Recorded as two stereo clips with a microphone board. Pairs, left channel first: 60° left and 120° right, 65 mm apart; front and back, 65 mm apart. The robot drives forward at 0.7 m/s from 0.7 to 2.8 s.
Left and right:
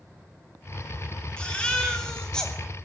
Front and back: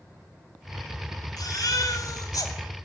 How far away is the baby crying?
About 3 m.